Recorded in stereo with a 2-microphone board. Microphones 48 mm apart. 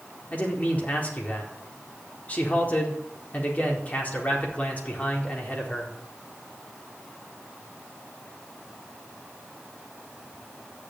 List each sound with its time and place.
0.3 s a man speaking: 35° left (ahead or behind), 4 m